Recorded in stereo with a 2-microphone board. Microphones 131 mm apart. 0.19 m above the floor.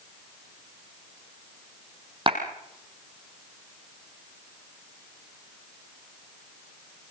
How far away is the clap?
About 5.5 m.